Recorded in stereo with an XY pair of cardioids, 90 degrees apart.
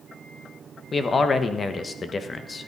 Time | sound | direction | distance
0.9 | a man speaking | 40° left | 1.3 m